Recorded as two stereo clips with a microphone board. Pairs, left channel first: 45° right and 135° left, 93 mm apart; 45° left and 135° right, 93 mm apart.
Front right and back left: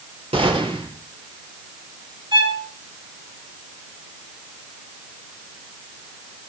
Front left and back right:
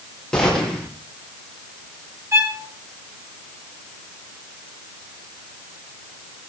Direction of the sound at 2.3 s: 165° left.